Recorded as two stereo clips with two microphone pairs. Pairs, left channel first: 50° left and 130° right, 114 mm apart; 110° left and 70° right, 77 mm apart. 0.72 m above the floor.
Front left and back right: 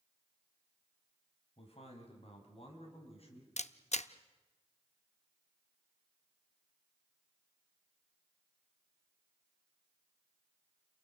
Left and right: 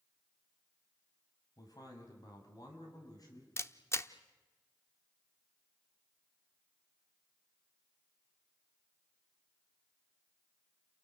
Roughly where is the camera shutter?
Ahead left.